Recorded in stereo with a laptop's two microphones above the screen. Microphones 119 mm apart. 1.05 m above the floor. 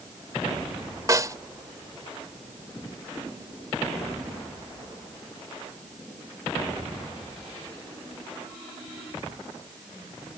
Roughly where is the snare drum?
Right.